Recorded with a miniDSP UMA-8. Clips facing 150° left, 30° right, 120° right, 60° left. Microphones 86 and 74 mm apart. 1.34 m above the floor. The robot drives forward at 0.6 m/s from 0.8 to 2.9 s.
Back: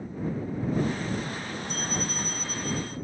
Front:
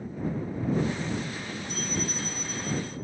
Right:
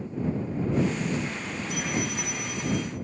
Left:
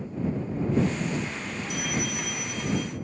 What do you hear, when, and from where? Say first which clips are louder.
1.7 s a bell: front 1 dB, right 1 dB; straight behind, 2.0 m